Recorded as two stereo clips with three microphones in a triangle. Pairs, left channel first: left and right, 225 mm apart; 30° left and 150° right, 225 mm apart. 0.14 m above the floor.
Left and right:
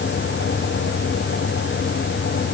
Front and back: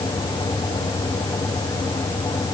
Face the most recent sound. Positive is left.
No sound to turn to.